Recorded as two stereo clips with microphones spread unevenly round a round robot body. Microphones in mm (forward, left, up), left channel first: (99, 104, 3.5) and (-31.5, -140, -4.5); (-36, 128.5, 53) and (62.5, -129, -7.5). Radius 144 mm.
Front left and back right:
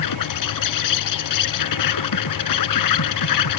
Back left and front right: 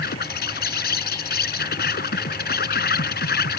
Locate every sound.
0.0 s an insect: 55° left